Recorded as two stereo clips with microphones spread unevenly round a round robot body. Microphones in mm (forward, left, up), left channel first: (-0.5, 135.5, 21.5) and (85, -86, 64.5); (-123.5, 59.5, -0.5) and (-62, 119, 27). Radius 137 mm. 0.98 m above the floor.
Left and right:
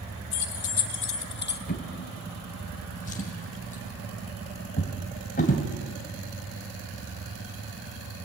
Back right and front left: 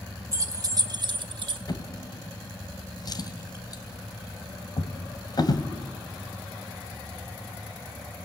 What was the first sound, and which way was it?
Keys jangling, 100° left.